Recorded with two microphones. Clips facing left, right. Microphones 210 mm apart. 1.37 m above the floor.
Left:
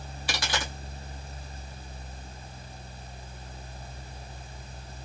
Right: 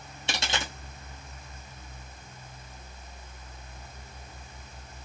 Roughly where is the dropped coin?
Right.